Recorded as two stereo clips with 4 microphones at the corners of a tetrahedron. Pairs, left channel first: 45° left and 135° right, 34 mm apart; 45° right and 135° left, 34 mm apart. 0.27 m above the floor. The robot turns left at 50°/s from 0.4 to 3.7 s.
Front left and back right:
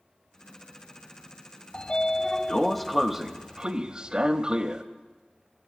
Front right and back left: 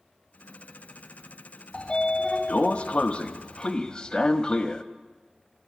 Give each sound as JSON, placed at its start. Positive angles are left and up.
{"t": 1.7, "sound": "a sliding door", "azimuth_deg": 5, "distance_m": 0.5}